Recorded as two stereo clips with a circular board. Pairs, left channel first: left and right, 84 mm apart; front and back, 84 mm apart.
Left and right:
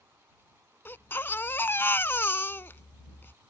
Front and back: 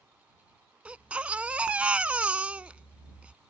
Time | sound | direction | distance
0.8 | a baby crying | 120° left | ?